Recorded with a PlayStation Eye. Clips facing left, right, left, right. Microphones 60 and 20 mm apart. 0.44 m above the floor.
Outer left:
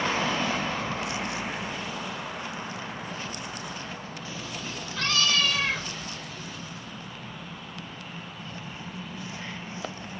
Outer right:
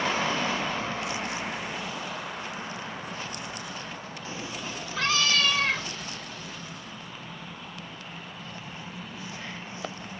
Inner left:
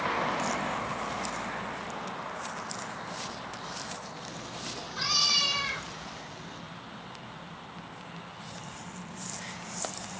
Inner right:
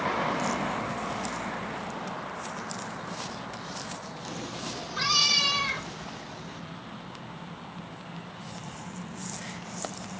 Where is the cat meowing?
30° right (ahead or behind), 0.9 m; by 6.6 s 10° left (ahead or behind), 3 m.